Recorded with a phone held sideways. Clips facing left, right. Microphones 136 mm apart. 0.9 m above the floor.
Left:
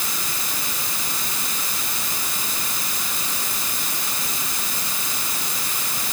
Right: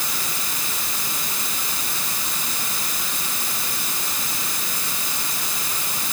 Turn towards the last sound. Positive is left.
No sound to turn to.